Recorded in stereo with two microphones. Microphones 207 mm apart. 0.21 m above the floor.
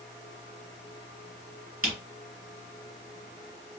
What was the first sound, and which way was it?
A camera shutter, 10° right (ahead or behind).